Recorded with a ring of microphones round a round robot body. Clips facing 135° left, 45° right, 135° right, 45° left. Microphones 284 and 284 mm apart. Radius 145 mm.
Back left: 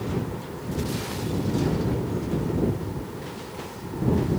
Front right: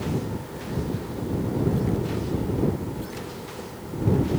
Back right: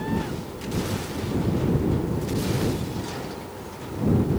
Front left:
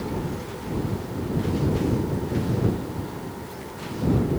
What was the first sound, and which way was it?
Only background noise.